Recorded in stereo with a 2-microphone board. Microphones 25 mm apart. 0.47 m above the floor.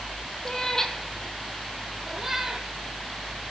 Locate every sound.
0.5 s a cat meowing: 20° left (ahead or behind), 1.5 m; by 3.5 s 25° right (ahead or behind), 2.5 m